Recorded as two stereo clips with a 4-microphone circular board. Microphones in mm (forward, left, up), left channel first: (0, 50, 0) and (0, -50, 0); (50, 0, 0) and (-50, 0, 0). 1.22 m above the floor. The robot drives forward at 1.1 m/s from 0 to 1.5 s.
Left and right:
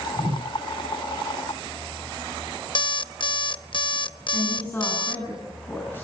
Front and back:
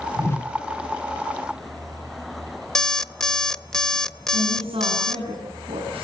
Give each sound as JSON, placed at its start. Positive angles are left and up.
{"t": 0.2, "sound": "a whoosh", "azimuth_deg": -55, "distance_m": 1.1}
{"t": 2.8, "sound": "an alarm clock", "azimuth_deg": 85, "distance_m": 0.7}
{"t": 4.3, "sound": "a woman speaking", "azimuth_deg": 160, "distance_m": 9.0}